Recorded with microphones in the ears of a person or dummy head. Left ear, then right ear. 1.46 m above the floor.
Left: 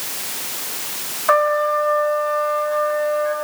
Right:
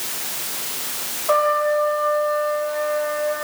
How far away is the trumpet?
About 3.5 m.